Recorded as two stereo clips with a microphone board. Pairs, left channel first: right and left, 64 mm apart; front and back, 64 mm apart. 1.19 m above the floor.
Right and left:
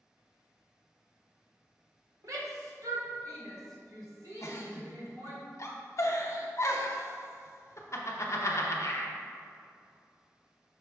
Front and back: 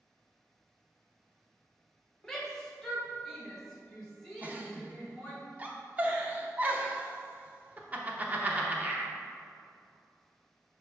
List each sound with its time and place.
2.2 s a shout: 80° left, 1.3 m
4.4 s a giggle: 120° right, 0.8 m